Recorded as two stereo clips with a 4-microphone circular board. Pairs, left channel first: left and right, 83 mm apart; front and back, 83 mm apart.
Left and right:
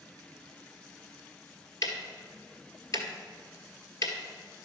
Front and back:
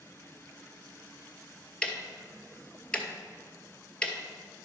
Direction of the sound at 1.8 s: 75° left.